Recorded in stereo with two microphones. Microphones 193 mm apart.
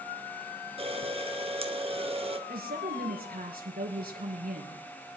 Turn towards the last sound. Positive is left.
turn(degrees=-50)  # may be behind; listen again after turning